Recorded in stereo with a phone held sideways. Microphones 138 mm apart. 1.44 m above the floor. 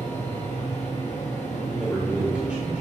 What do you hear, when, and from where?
0.0 s a fan: 60° left (ahead or behind), 1.3 m
1.7 s a man speaking: 10° right (ahead or behind), 1.9 m